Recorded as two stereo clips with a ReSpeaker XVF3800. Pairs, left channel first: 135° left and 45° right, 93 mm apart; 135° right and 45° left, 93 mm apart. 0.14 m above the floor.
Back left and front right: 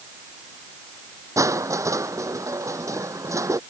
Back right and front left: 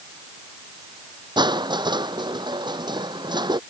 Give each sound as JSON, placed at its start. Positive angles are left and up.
{"t": 1.4, "sound": "crushing", "azimuth_deg": 10}